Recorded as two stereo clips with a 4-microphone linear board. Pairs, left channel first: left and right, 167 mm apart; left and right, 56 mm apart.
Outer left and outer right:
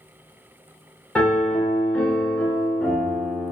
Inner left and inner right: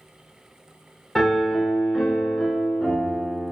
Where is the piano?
5° left (ahead or behind), 0.7 m.